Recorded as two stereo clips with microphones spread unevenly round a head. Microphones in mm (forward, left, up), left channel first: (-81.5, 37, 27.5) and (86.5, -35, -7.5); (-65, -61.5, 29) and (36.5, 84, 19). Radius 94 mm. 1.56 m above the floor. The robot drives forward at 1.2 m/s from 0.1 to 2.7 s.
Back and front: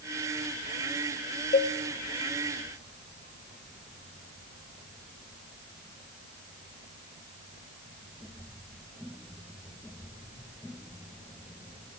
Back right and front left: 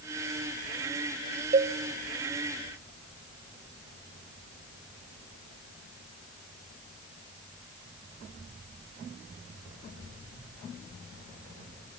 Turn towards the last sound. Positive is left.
turn(degrees=160)